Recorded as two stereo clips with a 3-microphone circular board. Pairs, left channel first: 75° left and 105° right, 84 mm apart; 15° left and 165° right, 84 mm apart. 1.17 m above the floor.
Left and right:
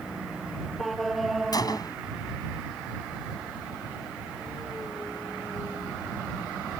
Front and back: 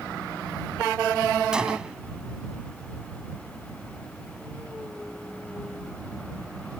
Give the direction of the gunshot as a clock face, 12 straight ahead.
8 o'clock.